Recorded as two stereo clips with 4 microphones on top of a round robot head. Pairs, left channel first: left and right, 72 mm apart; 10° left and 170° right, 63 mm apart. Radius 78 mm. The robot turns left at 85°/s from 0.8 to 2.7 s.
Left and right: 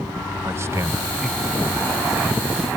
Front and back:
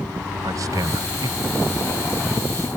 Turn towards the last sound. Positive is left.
turn(degrees=55)